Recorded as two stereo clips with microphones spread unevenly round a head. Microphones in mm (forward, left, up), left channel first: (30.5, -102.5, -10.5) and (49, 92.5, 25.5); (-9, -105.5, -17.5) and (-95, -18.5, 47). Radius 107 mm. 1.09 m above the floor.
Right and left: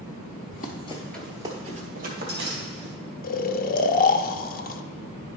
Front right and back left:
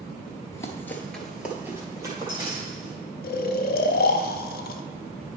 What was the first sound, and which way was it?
Running footsteps, 135° right.